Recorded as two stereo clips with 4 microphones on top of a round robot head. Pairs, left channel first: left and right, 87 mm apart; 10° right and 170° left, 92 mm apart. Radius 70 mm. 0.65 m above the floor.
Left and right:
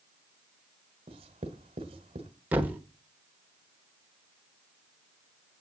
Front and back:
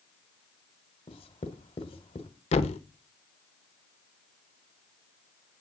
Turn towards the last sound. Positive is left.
turn(degrees=-15)